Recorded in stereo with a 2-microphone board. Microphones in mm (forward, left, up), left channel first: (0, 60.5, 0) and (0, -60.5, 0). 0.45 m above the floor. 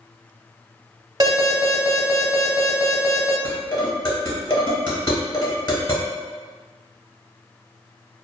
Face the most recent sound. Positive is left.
turn(degrees=40)  # may be behind; listen again after turning